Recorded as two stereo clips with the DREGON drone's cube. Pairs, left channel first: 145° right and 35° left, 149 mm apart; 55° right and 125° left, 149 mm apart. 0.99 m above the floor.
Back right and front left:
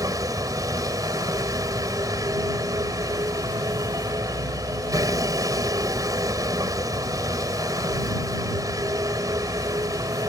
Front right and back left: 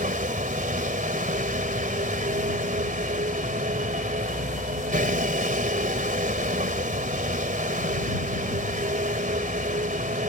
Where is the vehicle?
100° left.